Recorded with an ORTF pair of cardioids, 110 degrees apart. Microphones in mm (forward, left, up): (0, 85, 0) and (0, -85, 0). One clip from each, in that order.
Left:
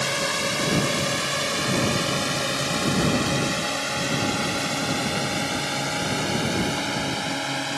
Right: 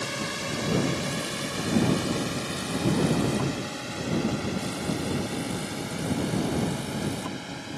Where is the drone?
45° left; by 7.8 s 65° left.